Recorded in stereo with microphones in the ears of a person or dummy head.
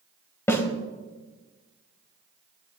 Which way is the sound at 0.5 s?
15° left (ahead or behind).